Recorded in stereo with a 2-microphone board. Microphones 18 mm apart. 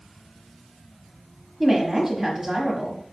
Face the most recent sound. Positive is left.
turn(degrees=-15)  # may be behind; listen again after turning